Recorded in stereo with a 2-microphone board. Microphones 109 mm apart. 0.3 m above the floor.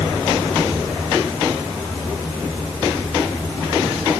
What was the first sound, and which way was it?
Only background noise.